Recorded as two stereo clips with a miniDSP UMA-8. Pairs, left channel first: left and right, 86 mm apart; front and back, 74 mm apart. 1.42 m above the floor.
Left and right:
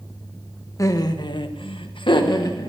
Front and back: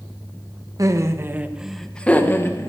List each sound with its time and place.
0.8 s laughter: 140° left, 1.5 m; by 2.7 s 50° left, 1.8 m